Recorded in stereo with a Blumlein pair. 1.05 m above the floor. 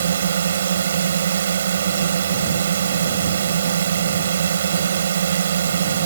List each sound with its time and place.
0.0 s a drone: 65° right